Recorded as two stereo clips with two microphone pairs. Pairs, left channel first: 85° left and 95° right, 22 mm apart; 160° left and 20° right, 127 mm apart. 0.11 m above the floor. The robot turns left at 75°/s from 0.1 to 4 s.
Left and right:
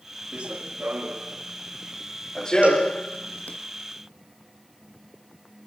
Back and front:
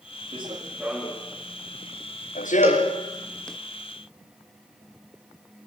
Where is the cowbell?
90° right, 7 m; by 2.9 s 115° right, 7 m.